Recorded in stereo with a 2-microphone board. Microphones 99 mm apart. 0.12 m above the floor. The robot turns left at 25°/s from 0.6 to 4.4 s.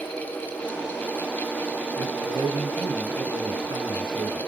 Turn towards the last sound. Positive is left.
turn(degrees=-120)